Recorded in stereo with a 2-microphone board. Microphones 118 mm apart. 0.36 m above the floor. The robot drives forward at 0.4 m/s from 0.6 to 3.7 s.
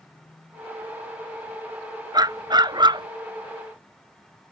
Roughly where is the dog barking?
Right.